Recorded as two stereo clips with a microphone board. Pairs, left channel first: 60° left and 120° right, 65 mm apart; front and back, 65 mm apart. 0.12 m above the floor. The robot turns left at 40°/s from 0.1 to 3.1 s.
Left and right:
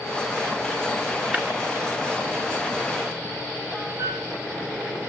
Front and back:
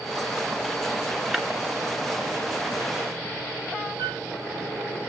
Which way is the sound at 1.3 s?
100° right.